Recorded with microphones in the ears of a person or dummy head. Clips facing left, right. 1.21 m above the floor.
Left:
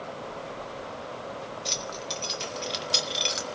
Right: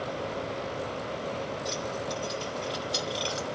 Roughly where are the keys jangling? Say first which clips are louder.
Right 4 dB; left.